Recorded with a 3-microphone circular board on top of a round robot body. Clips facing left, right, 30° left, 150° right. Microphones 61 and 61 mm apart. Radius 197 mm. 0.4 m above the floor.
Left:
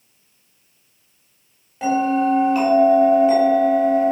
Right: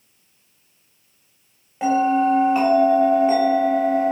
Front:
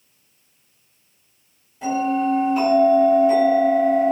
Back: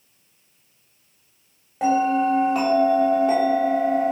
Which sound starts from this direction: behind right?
A bell, at 1.8 s.